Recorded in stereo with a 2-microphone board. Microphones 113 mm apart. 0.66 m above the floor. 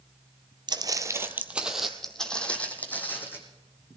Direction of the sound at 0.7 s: 40° right (ahead or behind).